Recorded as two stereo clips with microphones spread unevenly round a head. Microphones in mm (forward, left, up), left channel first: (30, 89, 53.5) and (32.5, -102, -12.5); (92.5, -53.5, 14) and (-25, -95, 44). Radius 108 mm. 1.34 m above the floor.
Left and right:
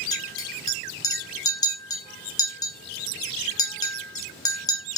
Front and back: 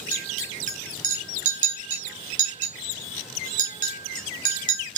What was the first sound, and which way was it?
A clink, 155° left.